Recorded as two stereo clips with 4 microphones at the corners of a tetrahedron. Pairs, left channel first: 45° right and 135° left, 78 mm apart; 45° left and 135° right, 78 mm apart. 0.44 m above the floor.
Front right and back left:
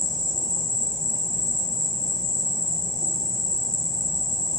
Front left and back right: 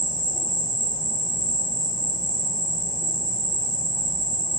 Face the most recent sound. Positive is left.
turn(degrees=-130)